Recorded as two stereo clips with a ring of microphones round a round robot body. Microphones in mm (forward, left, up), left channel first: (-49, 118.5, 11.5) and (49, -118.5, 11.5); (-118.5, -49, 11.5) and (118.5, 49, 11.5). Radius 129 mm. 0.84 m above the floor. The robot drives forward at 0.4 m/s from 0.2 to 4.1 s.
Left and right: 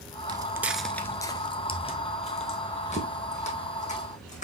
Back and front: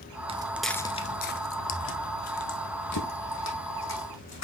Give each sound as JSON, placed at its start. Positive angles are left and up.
{"t": 0.3, "sound": "footsteps", "azimuth_deg": -15, "distance_m": 0.8}